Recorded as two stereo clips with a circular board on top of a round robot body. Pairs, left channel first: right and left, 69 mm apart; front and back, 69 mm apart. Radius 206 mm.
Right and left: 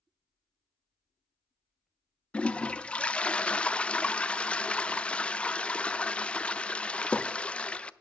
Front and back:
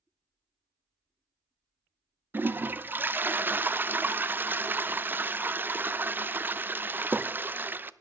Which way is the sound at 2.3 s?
150° right.